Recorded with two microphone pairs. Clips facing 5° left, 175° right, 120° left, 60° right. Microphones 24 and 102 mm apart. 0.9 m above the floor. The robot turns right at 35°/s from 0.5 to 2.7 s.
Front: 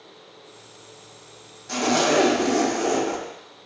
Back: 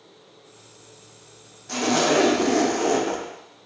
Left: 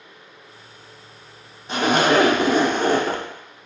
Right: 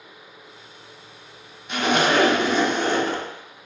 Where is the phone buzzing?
No phone buzzing in this recording.